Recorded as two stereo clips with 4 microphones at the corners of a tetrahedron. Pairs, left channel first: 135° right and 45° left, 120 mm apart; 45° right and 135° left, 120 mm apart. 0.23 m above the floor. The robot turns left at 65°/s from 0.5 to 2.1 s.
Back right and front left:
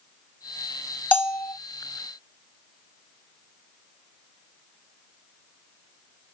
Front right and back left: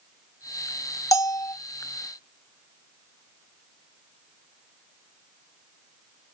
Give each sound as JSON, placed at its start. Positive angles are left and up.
{"t": 1.1, "sound": "a bell", "azimuth_deg": -70, "distance_m": 1.2}